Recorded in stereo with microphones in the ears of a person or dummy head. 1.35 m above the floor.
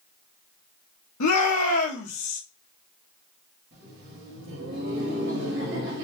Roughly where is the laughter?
Right.